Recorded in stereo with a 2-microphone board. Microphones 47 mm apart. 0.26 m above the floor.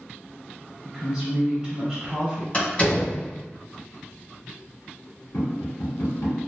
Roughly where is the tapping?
Left.